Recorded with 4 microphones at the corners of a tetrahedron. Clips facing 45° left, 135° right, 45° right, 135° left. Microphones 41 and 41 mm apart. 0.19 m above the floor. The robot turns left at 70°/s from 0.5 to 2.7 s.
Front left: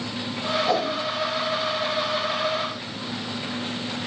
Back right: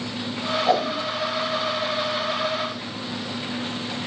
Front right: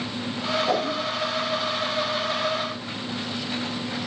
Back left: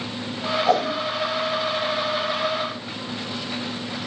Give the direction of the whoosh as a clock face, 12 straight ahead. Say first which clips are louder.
Back right 4 dB, back left 7 dB; 6 o'clock.